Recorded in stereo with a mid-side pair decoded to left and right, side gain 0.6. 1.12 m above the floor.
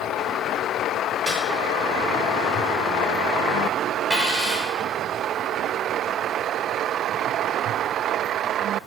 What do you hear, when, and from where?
1.3 s a snare drum: 10° right, 1.8 m
4.1 s a dropped coin: 10° right, 1.8 m